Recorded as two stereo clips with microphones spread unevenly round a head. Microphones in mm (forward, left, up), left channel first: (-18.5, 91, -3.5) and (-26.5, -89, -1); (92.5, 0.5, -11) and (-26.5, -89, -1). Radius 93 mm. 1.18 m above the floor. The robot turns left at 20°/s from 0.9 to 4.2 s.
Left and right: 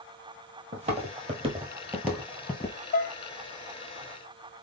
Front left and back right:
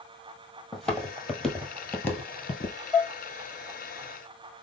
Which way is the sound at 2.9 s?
120° left.